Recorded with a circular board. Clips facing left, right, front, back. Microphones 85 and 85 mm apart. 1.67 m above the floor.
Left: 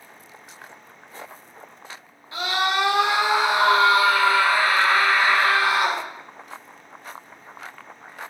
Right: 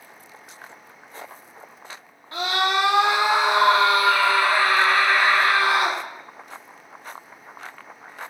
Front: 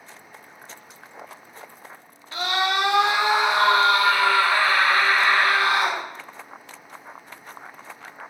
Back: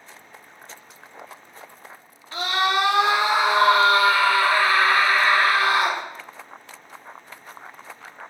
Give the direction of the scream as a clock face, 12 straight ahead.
4 o'clock.